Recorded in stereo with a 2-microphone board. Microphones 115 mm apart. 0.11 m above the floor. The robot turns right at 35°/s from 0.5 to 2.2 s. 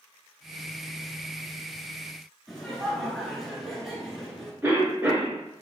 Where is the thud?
I don't hear a thud.